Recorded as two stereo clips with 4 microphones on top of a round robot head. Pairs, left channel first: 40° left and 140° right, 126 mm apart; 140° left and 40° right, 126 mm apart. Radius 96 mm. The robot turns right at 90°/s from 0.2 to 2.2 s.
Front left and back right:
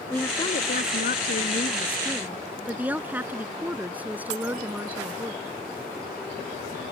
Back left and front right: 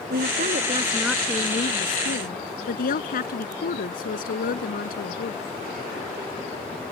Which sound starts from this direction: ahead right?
A woman speaking, at 0.1 s.